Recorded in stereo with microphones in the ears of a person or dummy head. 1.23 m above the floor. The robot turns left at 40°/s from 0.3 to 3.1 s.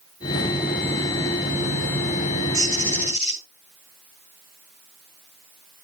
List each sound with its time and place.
2.5 s a bird: 40° right (ahead or behind), 7.5 m; by 3.4 s 20° right (ahead or behind), 7.5 m